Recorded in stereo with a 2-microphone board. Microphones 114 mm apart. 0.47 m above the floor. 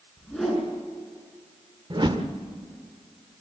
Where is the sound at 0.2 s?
Centre (ahead or behind), 6 m.